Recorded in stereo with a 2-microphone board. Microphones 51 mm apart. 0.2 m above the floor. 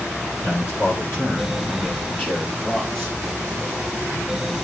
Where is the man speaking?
45° left (ahead or behind), 7.5 m; by 3.2 s 15° left (ahead or behind), 6 m.